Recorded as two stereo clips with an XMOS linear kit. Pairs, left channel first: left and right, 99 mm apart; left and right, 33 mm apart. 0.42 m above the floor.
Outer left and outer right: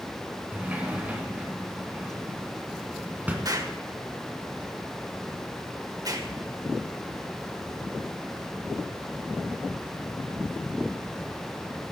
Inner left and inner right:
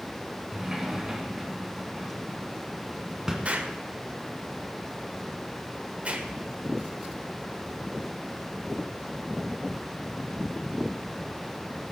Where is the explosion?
40° right (ahead or behind), 1.3 m.